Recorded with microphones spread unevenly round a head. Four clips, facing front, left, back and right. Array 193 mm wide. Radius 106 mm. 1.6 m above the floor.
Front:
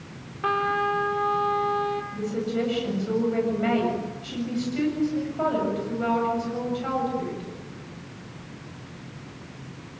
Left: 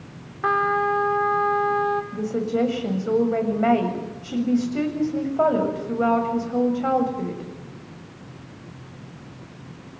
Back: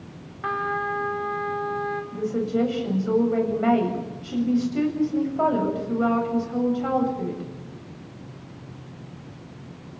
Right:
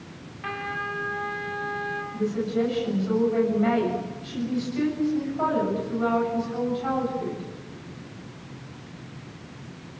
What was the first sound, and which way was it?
A trumpet, 60° left.